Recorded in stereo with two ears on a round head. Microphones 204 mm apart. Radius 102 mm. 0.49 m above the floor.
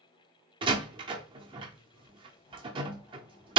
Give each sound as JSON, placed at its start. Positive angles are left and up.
{"t": 0.6, "sound": "a door slam", "side_deg": -20, "distance_m": 0.6}